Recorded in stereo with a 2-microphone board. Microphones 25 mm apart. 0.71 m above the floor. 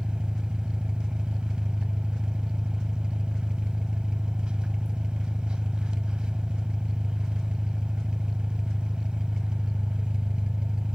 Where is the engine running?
35° right (ahead or behind), 1.1 m.